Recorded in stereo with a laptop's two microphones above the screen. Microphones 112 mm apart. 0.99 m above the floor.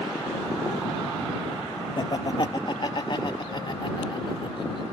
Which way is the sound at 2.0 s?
40° left (ahead or behind).